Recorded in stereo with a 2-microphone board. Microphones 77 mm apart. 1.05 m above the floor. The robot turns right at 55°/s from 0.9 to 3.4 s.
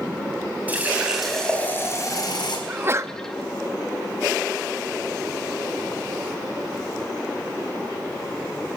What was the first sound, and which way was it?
A running tap, 20° right.